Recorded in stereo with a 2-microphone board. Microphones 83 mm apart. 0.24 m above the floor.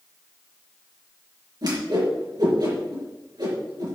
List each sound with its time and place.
1.6 s a whoosh: 55° right (ahead or behind), 4 m